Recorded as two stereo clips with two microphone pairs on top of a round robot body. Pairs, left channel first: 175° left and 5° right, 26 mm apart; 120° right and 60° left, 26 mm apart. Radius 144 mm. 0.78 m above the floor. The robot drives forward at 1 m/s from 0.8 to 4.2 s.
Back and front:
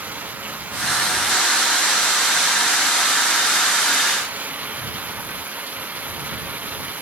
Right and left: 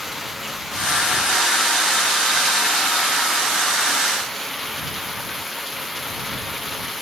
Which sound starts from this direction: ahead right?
Running water, at 0.0 s.